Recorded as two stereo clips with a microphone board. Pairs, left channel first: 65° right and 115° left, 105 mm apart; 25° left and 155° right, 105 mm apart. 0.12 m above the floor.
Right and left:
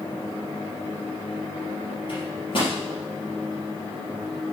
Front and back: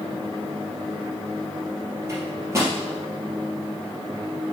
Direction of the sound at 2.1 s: 95° right.